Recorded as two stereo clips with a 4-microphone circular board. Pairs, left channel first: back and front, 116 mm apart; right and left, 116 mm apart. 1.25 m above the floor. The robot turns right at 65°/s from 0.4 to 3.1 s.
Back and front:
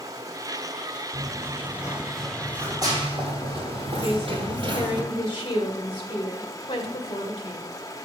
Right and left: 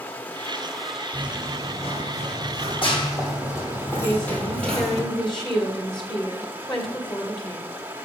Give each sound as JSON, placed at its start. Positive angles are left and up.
{"t": 0.0, "sound": "running water", "azimuth_deg": -25, "distance_m": 0.8}
{"t": 1.1, "sound": "running footsteps", "azimuth_deg": -175, "distance_m": 4.0}
{"t": 4.0, "sound": "a woman speaking", "azimuth_deg": -140, "distance_m": 1.9}